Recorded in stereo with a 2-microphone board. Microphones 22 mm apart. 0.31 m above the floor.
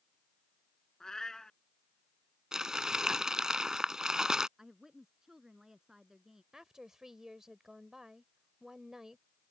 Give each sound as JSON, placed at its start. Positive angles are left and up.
{"t": 1.0, "sound": "a cat meowing", "side_deg": 20}
{"t": 2.5, "sound": "crumpling", "side_deg": -35}
{"t": 4.6, "sound": "a woman speaking", "side_deg": -30}
{"t": 6.5, "sound": "a woman speaking", "side_deg": -20}